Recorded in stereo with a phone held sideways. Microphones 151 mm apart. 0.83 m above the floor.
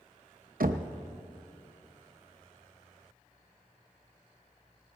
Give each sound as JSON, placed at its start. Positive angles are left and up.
{"t": 0.6, "sound": "knocking", "side_deg": -85, "distance_m": 0.6}